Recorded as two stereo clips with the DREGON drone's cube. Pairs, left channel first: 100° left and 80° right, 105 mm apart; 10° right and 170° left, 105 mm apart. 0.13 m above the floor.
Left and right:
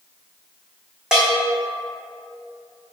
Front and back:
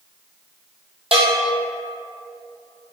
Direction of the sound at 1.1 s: 165° right.